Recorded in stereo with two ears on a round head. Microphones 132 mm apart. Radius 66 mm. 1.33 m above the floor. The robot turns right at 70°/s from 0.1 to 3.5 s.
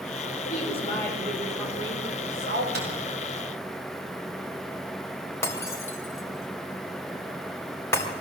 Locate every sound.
0.5 s a woman speaking: 120° left, 6 m; by 2.6 s 90° right, 6 m
2.7 s a microwave: 80° right, 8.5 m; by 2.9 s 70° right (ahead or behind), 8.5 m
5.4 s breaking glass: 20° left (ahead or behind), 4 m